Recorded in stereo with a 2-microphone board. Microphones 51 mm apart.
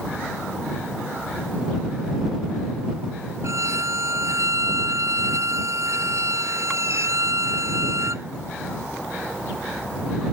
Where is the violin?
65° right (ahead or behind).